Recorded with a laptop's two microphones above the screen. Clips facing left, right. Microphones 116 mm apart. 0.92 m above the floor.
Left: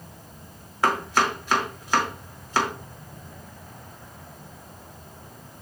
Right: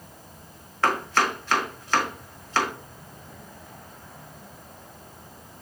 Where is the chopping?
15° left (ahead or behind), 1.3 m.